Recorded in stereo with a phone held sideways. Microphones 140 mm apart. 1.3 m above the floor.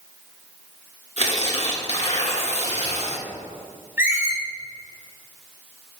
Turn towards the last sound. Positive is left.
turn(degrees=-15)  # may be behind; listen again after turning